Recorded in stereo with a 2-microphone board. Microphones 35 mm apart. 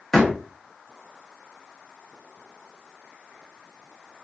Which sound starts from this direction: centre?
A door slam, at 0.1 s.